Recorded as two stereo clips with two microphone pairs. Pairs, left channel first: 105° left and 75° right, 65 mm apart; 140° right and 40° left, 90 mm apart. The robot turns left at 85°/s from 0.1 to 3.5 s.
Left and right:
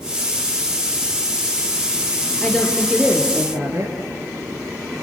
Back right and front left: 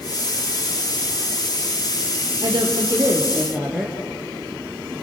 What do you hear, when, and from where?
2.4 s a woman speaking: 40° left, 3 m; by 4.0 s 50° right, 3 m